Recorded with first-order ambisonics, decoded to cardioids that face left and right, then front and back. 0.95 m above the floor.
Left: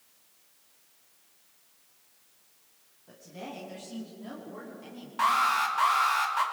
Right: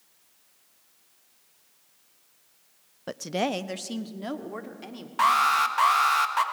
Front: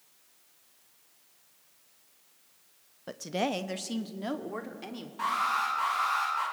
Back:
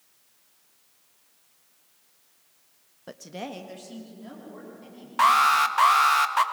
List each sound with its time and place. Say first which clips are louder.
3.1 s a woman speaking: right 15 dB, front 6 dB; 90° right, 0.6 m; by 5.1 s 40° right, 2.5 m
5.2 s an alarm: right 4 dB, back 10 dB; 160° right, 1.4 m